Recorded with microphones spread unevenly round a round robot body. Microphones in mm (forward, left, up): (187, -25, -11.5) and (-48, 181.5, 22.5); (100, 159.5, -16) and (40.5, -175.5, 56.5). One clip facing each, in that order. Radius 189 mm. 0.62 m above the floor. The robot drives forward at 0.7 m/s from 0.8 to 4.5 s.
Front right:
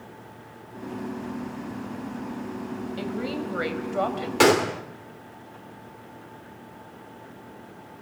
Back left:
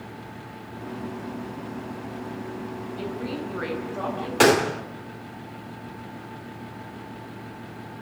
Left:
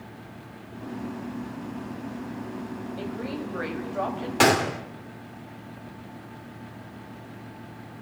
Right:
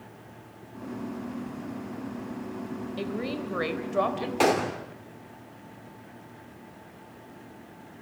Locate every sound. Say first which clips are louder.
3.0 s a woman speaking: front right 1 dB, right 1 dB; 65° right, 4 m; by 4.3 s 75° right, 3.5 m
4.4 s a gunshot: back left 1 dB, left 2 dB; 40° left, 2 m